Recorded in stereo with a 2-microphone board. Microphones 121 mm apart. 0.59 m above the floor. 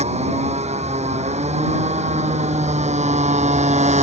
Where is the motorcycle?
65° right (ahead or behind); by 4.0 s 70° right (ahead or behind).